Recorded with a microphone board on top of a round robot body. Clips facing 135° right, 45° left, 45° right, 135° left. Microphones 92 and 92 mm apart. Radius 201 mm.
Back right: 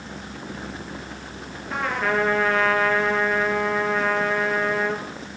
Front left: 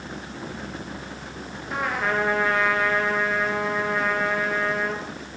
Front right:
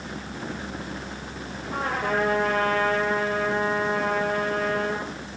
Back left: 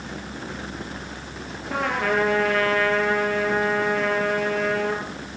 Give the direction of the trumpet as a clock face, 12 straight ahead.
8 o'clock.